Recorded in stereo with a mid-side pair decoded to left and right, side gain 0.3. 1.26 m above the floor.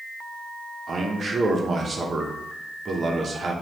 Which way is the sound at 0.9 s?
60° right.